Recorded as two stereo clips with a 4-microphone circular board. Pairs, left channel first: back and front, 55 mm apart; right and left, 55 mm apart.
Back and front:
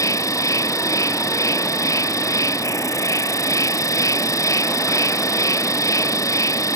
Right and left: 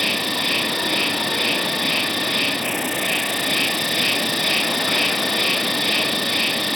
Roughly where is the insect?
Behind.